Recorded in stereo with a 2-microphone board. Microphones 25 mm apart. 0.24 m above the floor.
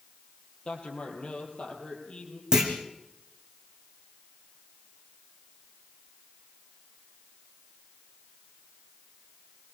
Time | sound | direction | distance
0.7 | a man speaking | 45° left (ahead or behind) | 7.5 m
2.5 | a clunk | 25° right (ahead or behind) | 5 m